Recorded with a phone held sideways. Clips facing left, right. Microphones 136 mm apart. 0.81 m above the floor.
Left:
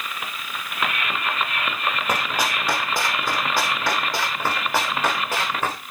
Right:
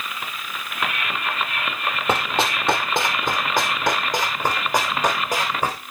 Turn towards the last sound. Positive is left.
turn(degrees=-10)  # may be behind; listen again after turning